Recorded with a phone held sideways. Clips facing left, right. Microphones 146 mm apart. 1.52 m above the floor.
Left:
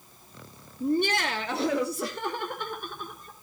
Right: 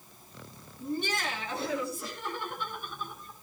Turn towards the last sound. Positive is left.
turn(degrees=75)  # may be behind; listen again after turning